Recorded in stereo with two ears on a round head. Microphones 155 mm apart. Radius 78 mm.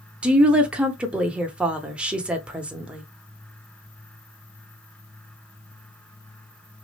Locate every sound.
0.2 s a woman speaking: 5° right (ahead or behind), 0.8 m